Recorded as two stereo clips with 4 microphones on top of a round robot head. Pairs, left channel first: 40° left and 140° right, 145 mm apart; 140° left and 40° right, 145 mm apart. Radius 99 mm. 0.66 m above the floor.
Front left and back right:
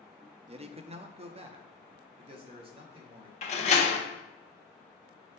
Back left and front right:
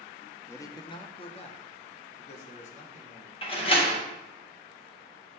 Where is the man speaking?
155° right, 0.6 m; by 3.3 s 170° left, 1.9 m.